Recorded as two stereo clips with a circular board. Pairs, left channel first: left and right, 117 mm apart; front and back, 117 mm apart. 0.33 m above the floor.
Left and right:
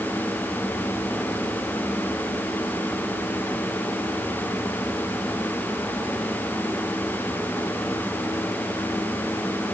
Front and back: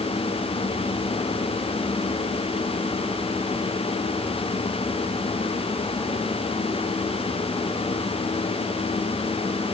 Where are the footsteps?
No footsteps in this recording.